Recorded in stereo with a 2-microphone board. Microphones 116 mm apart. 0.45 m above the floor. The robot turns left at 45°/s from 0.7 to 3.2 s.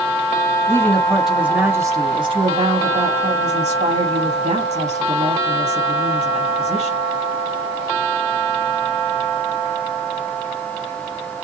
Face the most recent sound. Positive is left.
turn(degrees=-90)